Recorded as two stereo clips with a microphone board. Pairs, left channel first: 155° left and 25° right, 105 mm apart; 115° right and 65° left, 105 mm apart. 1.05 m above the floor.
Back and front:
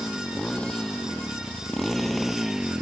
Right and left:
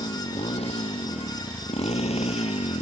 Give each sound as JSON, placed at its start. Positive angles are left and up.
{"t": 0.0, "sound": "a motorcycle", "azimuth_deg": -125}